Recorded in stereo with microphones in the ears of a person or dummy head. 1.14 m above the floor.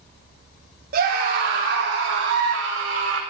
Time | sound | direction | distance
0.9 | a scream | 50° right (ahead or behind) | 2 m